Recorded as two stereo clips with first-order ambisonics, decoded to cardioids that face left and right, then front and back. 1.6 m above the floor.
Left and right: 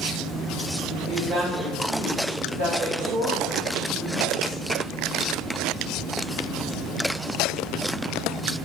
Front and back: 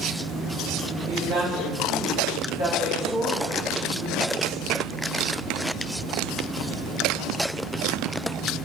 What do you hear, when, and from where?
1.0 s a woman speaking: 155° right, 0.8 m; by 4.6 s 95° right, 2 m